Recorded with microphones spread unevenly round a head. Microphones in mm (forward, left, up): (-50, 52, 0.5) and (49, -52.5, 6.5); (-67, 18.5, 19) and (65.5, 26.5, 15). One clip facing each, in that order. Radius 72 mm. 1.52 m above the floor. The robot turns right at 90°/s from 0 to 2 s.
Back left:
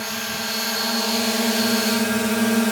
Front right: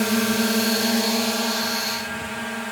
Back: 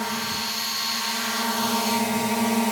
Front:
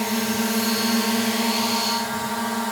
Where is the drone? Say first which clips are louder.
Front right 10 dB, front 7 dB; 65° right; by 2.7 s 115° left.